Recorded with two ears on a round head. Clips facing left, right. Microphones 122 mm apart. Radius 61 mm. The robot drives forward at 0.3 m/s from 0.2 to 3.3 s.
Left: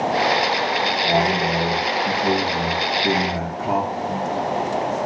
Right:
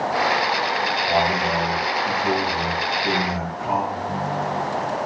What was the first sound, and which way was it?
A man speaking, 40° left (ahead or behind).